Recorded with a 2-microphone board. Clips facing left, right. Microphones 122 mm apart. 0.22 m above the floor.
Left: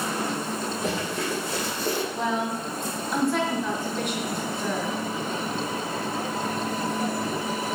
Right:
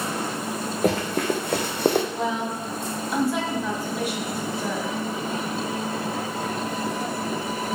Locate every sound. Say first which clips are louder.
0.8 s running footsteps: right 8 dB; 55° right (ahead or behind), 1.5 m; by 2.0 s 80° right, 0.7 m
2.1 s a woman speaking: even; 5° right (ahead or behind), 1.2 m